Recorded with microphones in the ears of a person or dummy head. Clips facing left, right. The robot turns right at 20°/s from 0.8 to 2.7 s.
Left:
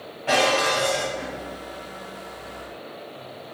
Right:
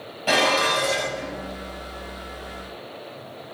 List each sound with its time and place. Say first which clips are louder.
0.3 s dishes clattering: left 1 dB; 50° right (ahead or behind), 1.3 m; by 1.3 s 45° right (ahead or behind), 1.3 m